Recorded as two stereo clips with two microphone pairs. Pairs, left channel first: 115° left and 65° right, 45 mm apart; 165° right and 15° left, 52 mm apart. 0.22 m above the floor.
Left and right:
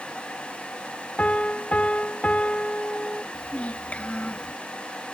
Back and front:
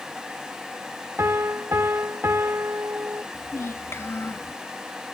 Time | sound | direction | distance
1.2 | a piano | 50° left | ?
3.3 | a child speaking | 170° left | ?